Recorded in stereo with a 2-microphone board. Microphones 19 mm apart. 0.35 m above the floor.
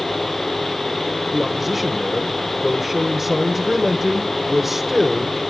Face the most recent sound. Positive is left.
turn(degrees=-15)  # may be behind; listen again after turning